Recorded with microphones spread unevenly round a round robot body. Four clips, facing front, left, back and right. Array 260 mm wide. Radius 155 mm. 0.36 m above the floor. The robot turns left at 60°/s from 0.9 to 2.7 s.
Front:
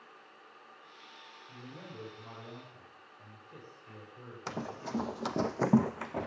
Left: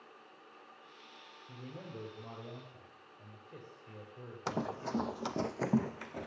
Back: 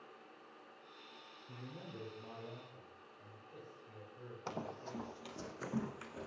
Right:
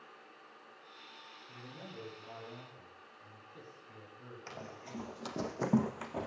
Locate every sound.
1.5 s a man speaking: 130° left, 9.5 m; by 5.1 s 60° left, 9.5 m
4.5 s running footsteps: 70° left, 1.2 m; by 6.3 s 20° right, 2 m